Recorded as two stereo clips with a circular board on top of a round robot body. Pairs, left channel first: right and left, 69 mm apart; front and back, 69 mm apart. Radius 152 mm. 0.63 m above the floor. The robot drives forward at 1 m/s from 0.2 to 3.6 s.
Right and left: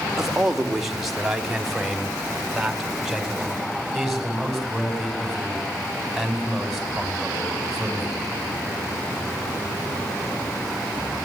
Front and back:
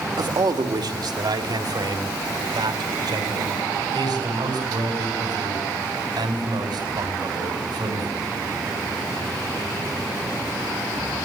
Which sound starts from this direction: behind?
A man speaking, at 0.2 s.